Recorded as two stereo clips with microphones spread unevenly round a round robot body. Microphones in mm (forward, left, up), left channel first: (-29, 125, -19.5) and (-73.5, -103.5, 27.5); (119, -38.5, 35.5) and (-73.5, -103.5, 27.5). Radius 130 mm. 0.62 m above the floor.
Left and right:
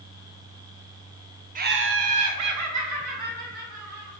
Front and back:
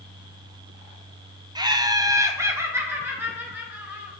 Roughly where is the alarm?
No alarm in this recording.